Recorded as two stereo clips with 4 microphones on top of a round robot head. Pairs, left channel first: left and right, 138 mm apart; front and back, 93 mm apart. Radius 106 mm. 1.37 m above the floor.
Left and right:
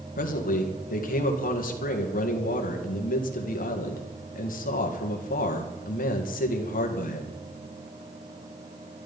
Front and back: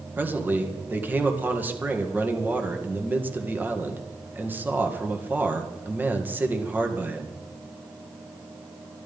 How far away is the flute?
I don't hear a flute.